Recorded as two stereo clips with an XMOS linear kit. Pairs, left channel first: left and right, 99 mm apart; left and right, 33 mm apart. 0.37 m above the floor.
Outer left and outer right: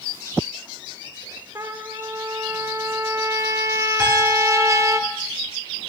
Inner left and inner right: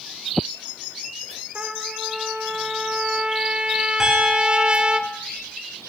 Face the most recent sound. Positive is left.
turn(degrees=-10)  # may be behind; listen again after turning